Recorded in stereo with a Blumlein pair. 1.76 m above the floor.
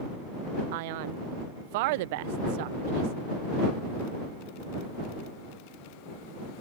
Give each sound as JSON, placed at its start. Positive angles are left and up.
{"t": 0.7, "sound": "a man speaking", "azimuth_deg": -50}